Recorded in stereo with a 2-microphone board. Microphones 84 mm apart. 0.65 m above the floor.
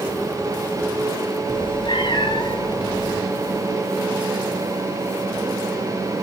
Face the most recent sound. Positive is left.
turn(degrees=55)  # may be behind; listen again after turning